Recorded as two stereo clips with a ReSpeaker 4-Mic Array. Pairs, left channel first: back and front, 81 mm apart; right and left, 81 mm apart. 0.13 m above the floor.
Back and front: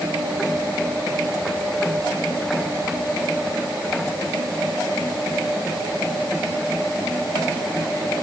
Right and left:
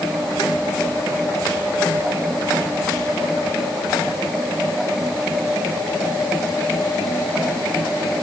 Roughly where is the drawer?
I don't hear a drawer.